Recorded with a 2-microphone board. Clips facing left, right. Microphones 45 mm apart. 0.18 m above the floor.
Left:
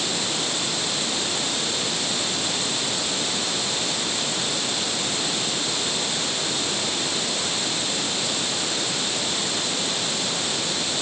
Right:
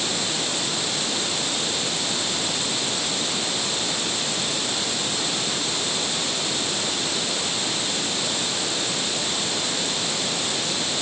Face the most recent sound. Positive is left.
No sound to turn to.